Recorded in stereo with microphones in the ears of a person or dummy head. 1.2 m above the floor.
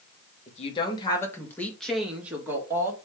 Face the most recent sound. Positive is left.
turn(degrees=-10)  # may be behind; listen again after turning